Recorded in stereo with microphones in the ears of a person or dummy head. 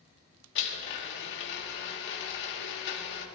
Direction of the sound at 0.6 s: 65° left (ahead or behind).